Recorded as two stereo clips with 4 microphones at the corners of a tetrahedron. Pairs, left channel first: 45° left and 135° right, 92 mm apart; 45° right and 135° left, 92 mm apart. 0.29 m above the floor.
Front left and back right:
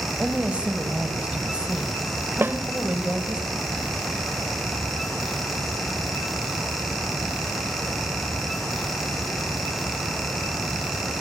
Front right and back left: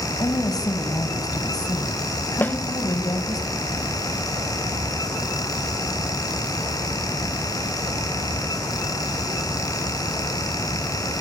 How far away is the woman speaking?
About 2 m.